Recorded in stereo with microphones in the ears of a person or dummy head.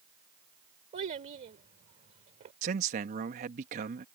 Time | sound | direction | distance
0.9 | a child speaking | 40° right (ahead or behind) | ?
2.6 | a man speaking | 40° right (ahead or behind) | ?